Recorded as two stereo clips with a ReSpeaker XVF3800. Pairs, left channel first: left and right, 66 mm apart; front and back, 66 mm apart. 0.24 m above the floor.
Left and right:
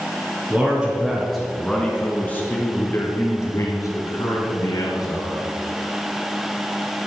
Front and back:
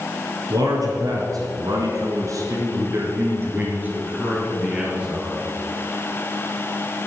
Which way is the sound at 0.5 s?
160° right.